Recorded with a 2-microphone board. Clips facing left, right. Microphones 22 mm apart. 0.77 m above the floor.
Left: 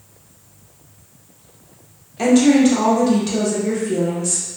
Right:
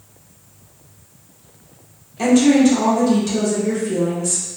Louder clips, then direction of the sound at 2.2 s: Even; 20° left (ahead or behind).